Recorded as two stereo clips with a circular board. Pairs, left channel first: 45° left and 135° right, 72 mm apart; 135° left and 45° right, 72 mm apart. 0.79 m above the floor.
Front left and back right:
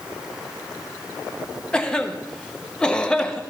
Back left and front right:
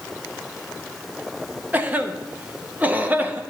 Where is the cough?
15° right, 0.7 m.